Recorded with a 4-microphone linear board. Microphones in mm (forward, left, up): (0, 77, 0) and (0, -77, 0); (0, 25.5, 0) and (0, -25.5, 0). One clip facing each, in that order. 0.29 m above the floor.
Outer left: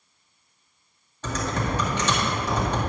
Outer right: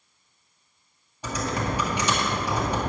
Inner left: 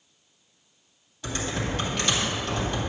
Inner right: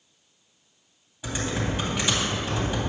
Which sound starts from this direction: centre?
Typing on a keyboard, at 1.2 s.